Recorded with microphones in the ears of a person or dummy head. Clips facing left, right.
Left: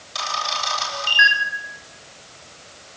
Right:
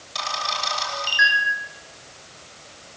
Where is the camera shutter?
5° left (ahead or behind), 10 m.